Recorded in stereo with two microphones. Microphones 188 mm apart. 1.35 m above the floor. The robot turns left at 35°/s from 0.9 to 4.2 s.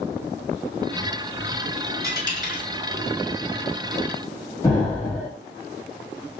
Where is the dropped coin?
20° right (ahead or behind), 1.5 m; by 2.7 s 25° right (ahead or behind), 1.5 m.